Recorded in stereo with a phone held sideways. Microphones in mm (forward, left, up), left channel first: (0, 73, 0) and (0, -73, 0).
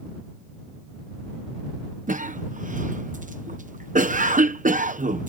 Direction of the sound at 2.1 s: 65° right (ahead or behind).